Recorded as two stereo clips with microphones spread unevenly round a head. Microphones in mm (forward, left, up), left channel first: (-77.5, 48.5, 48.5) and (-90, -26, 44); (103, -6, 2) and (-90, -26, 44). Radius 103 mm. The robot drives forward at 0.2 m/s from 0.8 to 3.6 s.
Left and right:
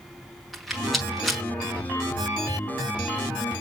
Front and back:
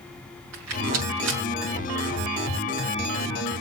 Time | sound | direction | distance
0.5 | a rattle | 170° left | 5.5 m